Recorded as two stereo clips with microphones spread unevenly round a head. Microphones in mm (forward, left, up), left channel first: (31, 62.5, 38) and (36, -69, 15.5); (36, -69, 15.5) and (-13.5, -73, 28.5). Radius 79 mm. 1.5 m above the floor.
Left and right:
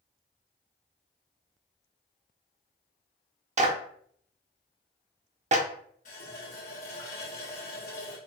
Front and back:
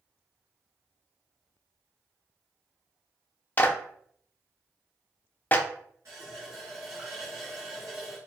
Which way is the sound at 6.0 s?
130° left.